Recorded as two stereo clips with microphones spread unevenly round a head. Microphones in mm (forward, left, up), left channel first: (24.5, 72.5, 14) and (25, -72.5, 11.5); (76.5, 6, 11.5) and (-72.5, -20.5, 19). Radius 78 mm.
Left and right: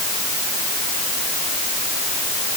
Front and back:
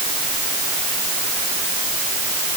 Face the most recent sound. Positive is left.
No sound to turn to.